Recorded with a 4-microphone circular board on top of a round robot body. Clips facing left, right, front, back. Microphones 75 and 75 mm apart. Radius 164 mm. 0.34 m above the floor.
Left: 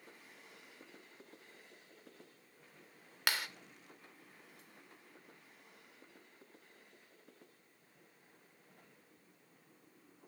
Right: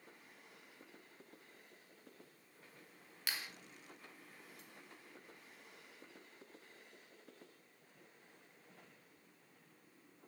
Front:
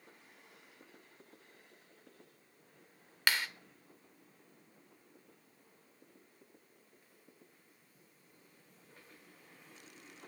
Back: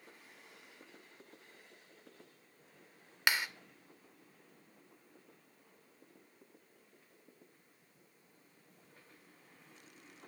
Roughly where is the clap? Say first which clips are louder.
Left 8 dB, even; left.